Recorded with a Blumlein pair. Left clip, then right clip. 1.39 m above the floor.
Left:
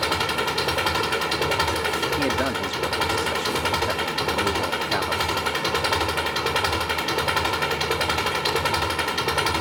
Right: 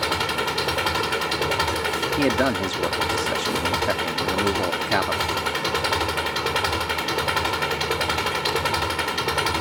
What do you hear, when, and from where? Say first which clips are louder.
0.0 s an engine running: even; straight ahead
2.2 s a man speaking: right 2 dB; 15° right